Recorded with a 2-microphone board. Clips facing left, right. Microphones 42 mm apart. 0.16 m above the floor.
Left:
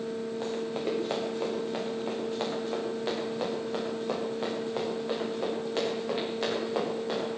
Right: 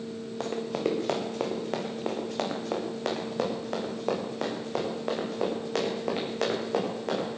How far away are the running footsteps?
About 7 m.